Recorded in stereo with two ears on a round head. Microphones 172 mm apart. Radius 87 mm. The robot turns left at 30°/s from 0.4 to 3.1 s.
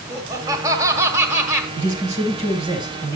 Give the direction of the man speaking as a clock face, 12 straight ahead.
4 o'clock.